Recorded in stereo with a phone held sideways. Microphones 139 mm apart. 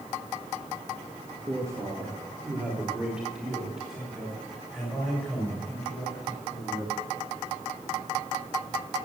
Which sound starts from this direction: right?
A man speaking, at 1.5 s.